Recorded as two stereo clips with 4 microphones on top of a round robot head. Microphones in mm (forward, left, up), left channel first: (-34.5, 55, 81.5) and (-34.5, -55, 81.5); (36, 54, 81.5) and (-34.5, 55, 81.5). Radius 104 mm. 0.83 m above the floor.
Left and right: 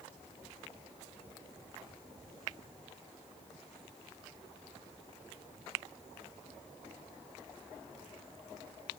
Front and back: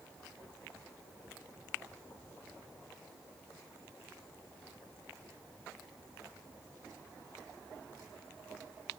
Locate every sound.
Only background noise.